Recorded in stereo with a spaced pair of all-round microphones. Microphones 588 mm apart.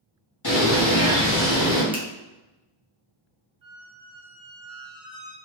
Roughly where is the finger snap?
Centre.